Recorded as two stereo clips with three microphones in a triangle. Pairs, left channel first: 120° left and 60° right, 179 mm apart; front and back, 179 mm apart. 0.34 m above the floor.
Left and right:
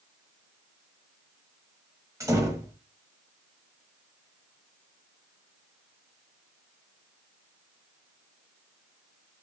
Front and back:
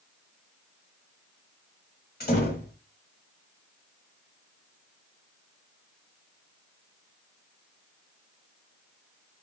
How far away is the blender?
No blender in this recording.